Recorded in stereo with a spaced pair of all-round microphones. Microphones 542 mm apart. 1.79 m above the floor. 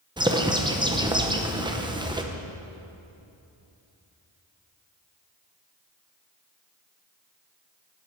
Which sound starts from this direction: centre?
A bird, at 0.2 s.